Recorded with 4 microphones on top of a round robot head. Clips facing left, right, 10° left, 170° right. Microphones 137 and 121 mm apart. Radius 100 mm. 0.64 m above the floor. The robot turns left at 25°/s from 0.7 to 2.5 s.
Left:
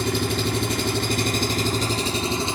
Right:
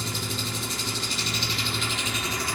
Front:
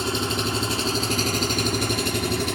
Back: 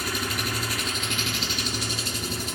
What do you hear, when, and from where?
0.0 s an engine running: 70° left, 1.3 m; by 2.6 s 25° left, 1.3 m